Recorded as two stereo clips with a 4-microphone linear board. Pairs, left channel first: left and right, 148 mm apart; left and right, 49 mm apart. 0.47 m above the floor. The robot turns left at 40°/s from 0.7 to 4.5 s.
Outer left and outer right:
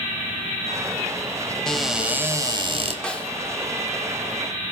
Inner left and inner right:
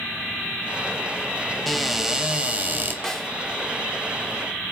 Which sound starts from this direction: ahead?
A cupboard door, at 1.7 s.